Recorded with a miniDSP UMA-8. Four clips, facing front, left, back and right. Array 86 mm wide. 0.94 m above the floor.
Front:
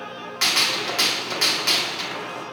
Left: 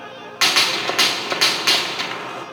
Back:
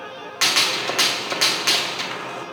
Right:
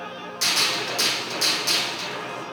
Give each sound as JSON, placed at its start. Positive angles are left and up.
{"t": 0.4, "sound": "a gunshot", "azimuth_deg": 105, "distance_m": 0.8}